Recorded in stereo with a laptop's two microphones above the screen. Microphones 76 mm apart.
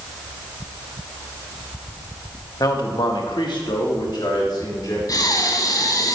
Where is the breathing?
55° left (ahead or behind), 1.4 m.